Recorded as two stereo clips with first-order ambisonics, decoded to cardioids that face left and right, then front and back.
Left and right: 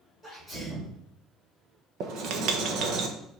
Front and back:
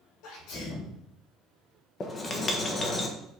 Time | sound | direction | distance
0.2 | a sneeze | 5° right | 4 m
2.0 | writing | 65° right | 1.1 m